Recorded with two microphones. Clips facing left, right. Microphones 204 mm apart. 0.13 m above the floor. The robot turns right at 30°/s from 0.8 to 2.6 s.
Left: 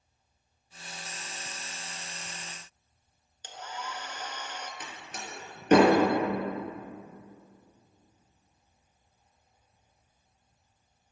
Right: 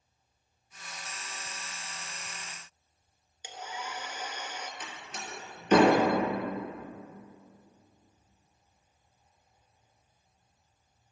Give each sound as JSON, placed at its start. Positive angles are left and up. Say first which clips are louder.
{"t": 3.4, "sound": "a hair dryer", "louder": "even", "side_deg": -10, "distance_m": 0.8}
{"t": 4.8, "sound": "a door slam", "louder": "left 1 dB", "side_deg": 60, "distance_m": 2.0}